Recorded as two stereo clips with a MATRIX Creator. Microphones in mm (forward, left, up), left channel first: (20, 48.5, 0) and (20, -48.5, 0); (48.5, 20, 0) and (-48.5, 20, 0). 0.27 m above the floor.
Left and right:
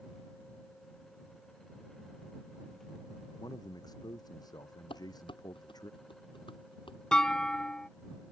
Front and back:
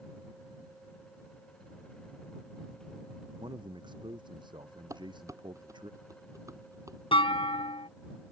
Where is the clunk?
10° left.